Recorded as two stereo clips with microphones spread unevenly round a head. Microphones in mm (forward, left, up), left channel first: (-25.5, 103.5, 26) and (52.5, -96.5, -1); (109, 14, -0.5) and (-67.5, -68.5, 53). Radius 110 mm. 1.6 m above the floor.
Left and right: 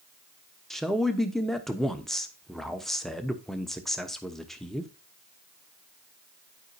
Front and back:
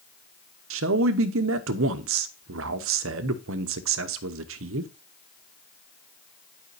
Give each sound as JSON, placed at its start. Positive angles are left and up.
{"t": 0.7, "sound": "a man speaking", "azimuth_deg": -160, "distance_m": 0.8}